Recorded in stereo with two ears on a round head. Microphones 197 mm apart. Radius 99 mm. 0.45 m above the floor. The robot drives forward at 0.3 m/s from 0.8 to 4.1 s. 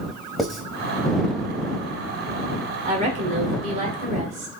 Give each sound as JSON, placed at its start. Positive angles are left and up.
{"t": 0.4, "sound": "writing", "side_deg": 0, "distance_m": 0.8}
{"t": 2.9, "sound": "a woman speaking", "side_deg": -35, "distance_m": 1.2}